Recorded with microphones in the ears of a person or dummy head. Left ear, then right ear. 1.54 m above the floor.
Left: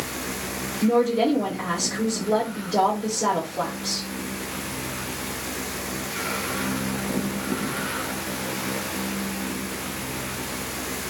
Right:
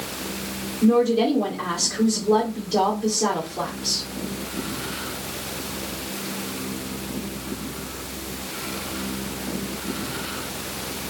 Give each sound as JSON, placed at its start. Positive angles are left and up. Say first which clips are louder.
{"t": 0.8, "sound": "a woman speaking", "louder": "right 1 dB", "side_deg": -25, "distance_m": 2.0}